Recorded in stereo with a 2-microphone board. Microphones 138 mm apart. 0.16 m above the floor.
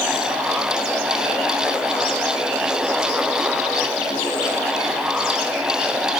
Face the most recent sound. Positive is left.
No sound to turn to.